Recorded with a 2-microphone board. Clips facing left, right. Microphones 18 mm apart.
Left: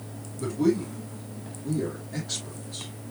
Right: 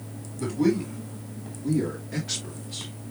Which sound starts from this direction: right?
A man speaking, at 0.4 s.